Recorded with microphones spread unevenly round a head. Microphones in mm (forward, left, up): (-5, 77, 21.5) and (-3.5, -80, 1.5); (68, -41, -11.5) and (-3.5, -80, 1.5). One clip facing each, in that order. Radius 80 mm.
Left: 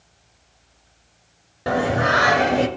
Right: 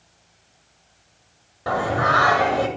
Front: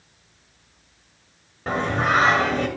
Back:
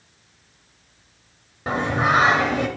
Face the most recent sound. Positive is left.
turn(degrees=135)